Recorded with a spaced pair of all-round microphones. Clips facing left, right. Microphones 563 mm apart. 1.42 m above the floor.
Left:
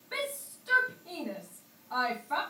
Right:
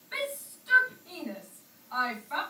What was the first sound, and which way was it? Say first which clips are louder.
A shout: right 1 dB; 65° left (ahead or behind).